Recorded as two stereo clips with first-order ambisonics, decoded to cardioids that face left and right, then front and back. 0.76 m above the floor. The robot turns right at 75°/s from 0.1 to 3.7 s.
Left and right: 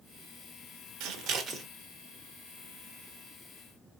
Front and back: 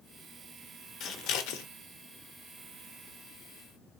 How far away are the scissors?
About 1.0 m.